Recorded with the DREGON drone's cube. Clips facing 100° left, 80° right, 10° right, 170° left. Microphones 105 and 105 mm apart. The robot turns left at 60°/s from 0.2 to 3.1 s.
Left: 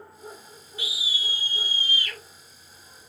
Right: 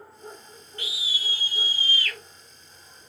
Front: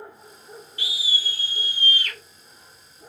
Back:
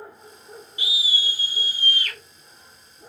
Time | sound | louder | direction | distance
0.8 | a scream | left 1 dB, back 2 dB | 160° left | 1.1 m